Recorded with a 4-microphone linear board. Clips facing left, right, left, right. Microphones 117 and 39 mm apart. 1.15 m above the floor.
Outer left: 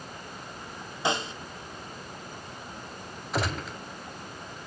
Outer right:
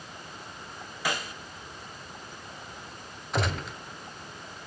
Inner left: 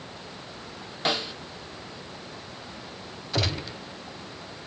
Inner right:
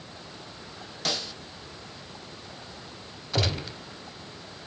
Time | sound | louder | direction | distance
1.1 | a snare drum | outer left 4 dB, inner left 4 dB | 25° left (ahead or behind) | 0.9 m
3.3 | a gunshot | even, even | centre (ahead or behind) | 1.3 m